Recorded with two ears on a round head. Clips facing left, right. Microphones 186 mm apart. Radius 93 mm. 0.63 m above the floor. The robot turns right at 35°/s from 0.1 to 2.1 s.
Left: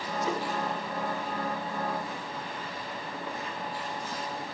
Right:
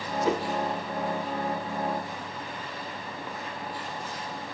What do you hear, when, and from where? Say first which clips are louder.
0.2 s a whoosh: right 6 dB; 55° right (ahead or behind), 0.6 m; by 0.5 s 65° right (ahead or behind), 0.6 m